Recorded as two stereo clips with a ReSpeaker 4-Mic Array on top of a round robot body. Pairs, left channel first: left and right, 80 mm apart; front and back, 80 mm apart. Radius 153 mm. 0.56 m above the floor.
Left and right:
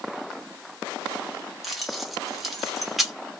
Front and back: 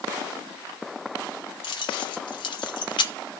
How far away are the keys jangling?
About 1.2 m.